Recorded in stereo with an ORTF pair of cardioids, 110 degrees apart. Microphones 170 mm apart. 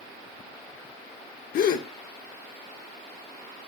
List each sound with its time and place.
1.5 s a gasp: 60° left, 1.6 m